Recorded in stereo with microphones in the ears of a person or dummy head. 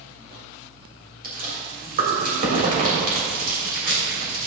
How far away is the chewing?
About 3 m.